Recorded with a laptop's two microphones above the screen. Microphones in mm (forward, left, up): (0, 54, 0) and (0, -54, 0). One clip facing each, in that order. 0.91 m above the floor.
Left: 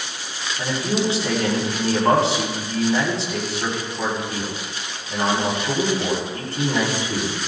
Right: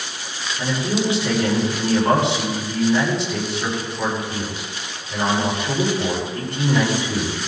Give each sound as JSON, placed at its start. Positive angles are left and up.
{"t": 0.6, "sound": "a man speaking", "side_deg": 30, "distance_m": 9.0}